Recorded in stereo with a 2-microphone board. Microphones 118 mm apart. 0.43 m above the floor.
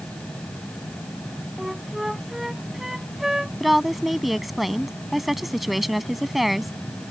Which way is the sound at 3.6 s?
Centre (ahead or behind).